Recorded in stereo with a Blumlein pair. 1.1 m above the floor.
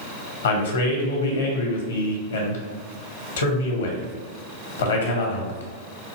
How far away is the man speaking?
About 1.2 m.